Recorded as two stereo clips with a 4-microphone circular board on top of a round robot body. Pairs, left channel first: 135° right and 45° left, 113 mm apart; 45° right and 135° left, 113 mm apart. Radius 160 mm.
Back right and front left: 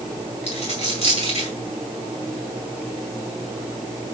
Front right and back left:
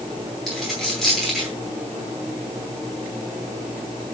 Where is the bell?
I don't hear a bell.